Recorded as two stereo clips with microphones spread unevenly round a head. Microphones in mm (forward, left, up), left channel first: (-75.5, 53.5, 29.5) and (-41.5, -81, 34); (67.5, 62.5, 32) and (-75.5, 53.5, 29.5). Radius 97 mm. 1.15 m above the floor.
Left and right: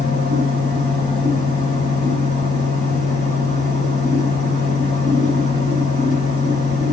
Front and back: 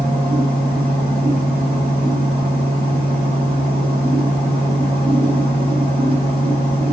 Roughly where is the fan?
Behind left.